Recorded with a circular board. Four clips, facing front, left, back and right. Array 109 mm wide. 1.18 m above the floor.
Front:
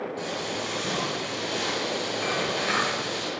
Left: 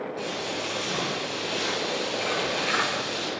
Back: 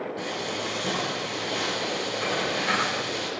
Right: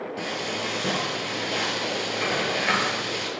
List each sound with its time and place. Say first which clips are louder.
0.2 s frying: right 1 dB, even; 100° right, 9.5 m